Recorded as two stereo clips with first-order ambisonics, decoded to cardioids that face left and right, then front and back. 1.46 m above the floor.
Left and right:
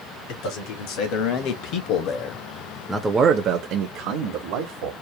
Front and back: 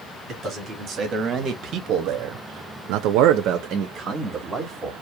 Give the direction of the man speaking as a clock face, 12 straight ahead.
8 o'clock.